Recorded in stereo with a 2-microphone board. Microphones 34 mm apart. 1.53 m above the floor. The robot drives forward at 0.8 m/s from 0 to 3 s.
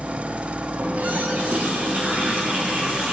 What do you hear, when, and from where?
0.8 s a running tap: 65° right (ahead or behind), 4 m; by 3.1 s 45° right (ahead or behind), 5 m